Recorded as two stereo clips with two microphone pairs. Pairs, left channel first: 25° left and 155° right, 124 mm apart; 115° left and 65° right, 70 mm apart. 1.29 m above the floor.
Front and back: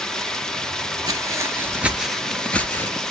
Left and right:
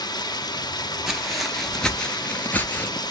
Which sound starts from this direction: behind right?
Footsteps, at 1.1 s.